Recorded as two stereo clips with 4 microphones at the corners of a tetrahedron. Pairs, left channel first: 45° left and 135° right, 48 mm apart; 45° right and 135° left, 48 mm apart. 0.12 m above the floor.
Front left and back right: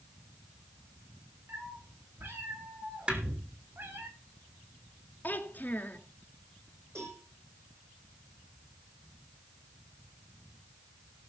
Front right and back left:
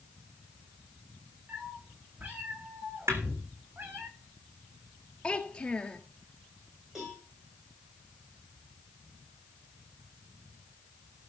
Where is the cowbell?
145° right, 8.5 m.